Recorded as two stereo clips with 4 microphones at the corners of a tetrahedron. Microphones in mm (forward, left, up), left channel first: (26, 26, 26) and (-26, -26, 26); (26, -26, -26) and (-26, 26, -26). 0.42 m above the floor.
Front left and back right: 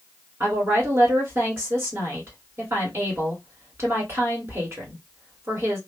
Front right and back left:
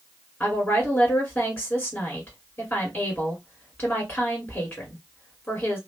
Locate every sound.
0.4 s a woman speaking: 95° right, 1.7 m